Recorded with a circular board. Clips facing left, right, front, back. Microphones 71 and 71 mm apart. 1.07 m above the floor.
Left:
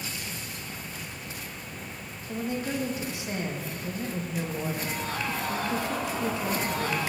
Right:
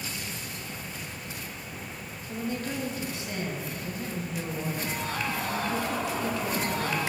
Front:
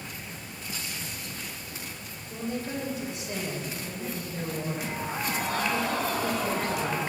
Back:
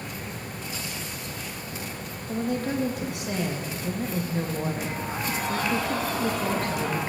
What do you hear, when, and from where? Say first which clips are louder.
2.3 s a woman speaking: left 2 dB, back 6 dB; 160° left, 1.3 m